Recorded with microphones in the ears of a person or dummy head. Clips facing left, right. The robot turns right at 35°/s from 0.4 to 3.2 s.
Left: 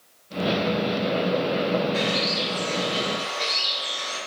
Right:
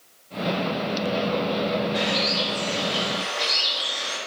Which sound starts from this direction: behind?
A bird, at 1.9 s.